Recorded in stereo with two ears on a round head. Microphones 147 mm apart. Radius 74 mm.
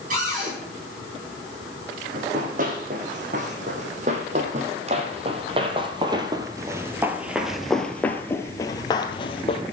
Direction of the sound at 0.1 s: 55° right (ahead or behind).